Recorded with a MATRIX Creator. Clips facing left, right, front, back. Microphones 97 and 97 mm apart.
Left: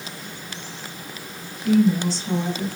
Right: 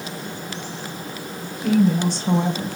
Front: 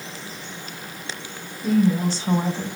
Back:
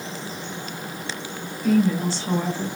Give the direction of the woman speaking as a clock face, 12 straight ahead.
2 o'clock.